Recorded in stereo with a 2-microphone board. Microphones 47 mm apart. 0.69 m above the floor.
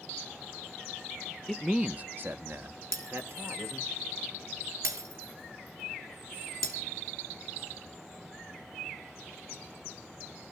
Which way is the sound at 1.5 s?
5° left (ahead or behind).